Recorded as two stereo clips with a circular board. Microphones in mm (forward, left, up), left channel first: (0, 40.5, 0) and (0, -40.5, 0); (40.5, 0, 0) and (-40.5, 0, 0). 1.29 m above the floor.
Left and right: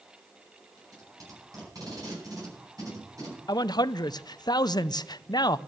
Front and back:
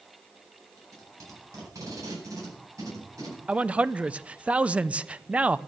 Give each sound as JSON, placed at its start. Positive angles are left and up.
{"t": 0.8, "sound": "tape being pulled", "azimuth_deg": -135, "distance_m": 9.0}
{"t": 3.5, "sound": "a man speaking", "azimuth_deg": 110, "distance_m": 0.5}